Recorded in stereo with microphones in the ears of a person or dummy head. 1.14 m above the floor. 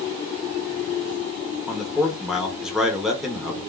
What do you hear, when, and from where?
1.7 s a man speaking: centre (ahead or behind), 0.8 m